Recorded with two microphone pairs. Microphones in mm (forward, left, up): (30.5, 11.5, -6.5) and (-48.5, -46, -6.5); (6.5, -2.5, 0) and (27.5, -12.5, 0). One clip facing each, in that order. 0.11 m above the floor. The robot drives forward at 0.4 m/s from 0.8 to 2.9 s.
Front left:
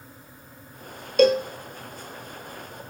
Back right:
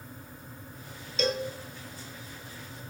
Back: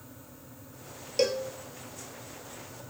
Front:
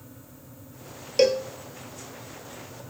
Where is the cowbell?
30° left, 0.6 m; by 1.5 s 40° left, 0.5 m.